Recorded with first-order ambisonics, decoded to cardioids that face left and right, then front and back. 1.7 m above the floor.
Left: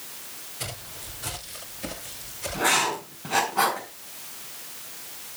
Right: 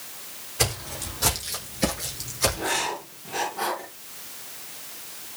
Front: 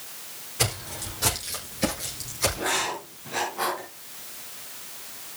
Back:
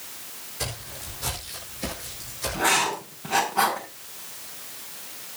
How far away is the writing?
About 7 m.